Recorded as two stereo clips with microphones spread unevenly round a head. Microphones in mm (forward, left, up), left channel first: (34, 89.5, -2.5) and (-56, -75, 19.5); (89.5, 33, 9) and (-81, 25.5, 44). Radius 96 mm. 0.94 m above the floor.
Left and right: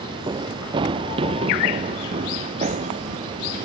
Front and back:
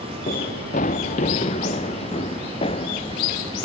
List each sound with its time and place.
0.3 s running footsteps: 50° right; by 3.6 s 65° right